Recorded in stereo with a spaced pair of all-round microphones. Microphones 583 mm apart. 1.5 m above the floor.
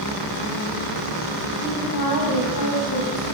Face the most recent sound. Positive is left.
turn(degrees=35)  # may be behind; listen again after turning